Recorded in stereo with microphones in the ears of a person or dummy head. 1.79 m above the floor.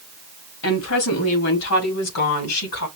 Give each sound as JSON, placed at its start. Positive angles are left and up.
{"t": 0.6, "sound": "a woman speaking", "side_deg": 75, "distance_m": 2.5}